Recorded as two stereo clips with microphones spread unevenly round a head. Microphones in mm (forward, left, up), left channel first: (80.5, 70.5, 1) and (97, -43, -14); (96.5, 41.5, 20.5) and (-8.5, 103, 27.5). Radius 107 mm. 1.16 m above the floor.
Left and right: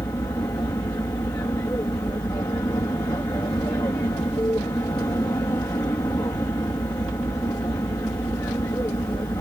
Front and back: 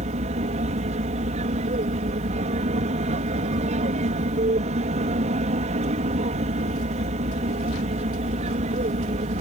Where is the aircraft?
170° left.